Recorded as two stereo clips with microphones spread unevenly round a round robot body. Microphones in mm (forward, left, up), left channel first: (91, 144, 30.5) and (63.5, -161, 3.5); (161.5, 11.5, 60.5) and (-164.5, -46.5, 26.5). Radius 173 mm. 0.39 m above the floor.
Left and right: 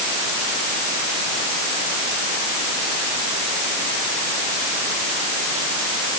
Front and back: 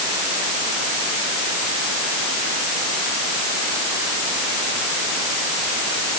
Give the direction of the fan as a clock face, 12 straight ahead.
No fan in this recording.